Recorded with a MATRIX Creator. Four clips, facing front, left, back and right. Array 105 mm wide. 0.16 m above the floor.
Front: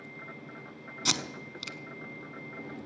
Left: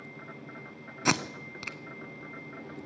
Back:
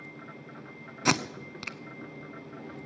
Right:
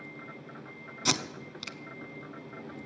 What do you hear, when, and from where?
1.1 s tape being pulled: 145° left, 0.7 m